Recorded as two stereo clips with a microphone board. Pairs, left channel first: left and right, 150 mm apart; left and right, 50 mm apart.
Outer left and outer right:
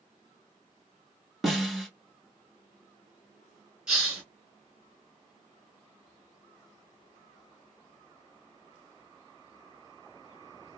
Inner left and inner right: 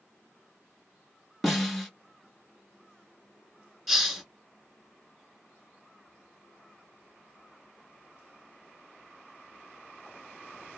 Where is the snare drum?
Centre (ahead or behind), 1.5 m.